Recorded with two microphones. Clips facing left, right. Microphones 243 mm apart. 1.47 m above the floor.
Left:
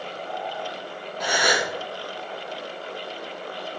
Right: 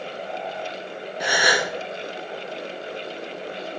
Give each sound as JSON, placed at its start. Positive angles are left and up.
{"t": 1.2, "sound": "a gasp", "side_deg": -10, "distance_m": 0.7}